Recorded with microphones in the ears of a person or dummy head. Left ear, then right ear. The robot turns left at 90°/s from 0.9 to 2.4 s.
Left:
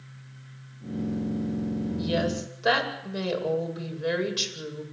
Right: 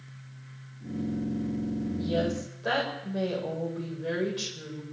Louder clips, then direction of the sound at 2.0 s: Left 2 dB; 80° left.